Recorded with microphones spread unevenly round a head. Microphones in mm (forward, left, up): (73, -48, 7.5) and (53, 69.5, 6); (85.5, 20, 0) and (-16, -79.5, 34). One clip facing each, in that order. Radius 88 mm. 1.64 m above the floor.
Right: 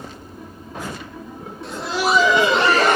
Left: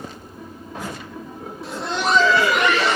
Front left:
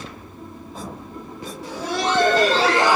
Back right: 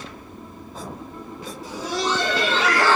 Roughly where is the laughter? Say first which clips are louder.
Right 2 dB, front left 2 dB; ahead.